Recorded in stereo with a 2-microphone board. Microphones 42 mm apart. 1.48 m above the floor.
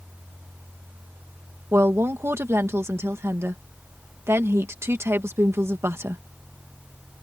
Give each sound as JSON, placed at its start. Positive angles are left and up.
{"t": 1.7, "sound": "a woman speaking", "side_deg": -80}